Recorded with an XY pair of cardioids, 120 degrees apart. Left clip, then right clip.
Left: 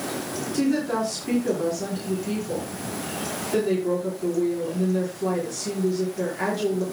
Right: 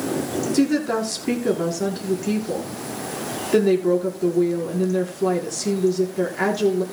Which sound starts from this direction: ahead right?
A woman speaking, at 0.5 s.